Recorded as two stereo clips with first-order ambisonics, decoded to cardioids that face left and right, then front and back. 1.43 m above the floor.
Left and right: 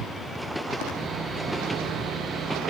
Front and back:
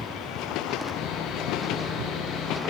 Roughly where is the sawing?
Ahead right.